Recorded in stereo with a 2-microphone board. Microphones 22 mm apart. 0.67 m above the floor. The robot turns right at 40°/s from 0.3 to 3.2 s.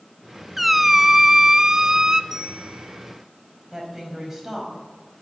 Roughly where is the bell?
Ahead right.